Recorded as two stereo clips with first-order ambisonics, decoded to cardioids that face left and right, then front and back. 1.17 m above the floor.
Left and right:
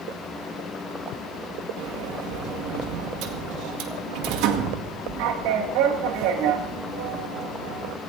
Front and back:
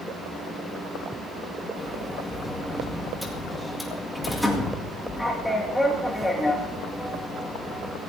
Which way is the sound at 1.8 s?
85° right.